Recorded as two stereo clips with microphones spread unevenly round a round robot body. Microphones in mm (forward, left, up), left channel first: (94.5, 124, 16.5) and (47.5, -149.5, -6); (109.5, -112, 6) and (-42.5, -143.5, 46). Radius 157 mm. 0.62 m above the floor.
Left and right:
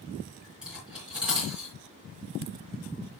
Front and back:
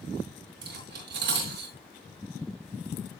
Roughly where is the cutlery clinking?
Behind.